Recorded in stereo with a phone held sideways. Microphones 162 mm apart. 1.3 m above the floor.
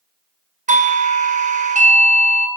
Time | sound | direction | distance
0.7 | a doorbell | 50° right (ahead or behind) | 0.6 m